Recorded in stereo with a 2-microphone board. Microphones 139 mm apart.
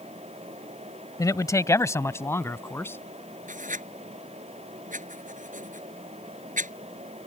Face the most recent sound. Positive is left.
turn(degrees=-75)  # may be behind; listen again after turning